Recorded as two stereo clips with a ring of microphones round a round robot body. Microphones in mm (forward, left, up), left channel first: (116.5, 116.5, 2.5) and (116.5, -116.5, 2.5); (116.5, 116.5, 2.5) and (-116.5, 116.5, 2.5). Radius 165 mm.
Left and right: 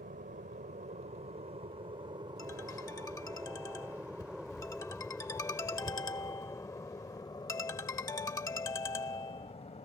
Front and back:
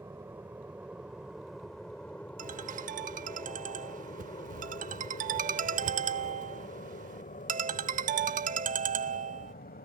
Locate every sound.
0.0 s an aircraft: 105° right; by 9.9 s 35° left
2.4 s a ringtone: 160° left